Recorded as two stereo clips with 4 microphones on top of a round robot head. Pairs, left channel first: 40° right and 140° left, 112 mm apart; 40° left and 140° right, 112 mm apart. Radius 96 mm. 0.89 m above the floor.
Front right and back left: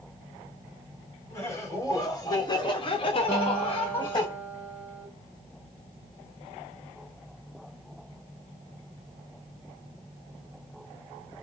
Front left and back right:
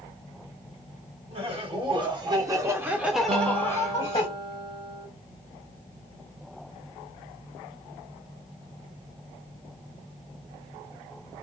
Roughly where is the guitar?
Right.